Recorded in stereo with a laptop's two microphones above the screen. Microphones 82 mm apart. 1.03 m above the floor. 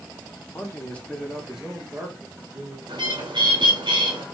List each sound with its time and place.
0.5 s a man speaking: 30° left (ahead or behind), 1.1 m; by 2.8 s 35° right (ahead or behind), 1.8 m
2.9 s a bird: 75° right (ahead or behind), 2 m